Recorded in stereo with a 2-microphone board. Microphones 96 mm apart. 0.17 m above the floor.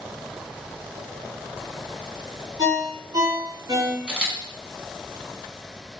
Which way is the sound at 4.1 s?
10° right (ahead or behind).